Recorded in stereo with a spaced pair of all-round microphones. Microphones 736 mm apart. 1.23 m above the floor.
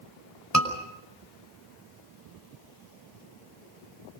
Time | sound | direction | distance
0.5 | a scream | 20° left (ahead or behind) | 5.5 m